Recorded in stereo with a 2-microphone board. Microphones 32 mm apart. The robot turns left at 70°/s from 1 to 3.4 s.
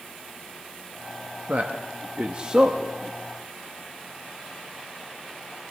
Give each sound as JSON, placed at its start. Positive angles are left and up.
{"t": 1.5, "sound": "a man speaking", "side_deg": -55, "distance_m": 0.7}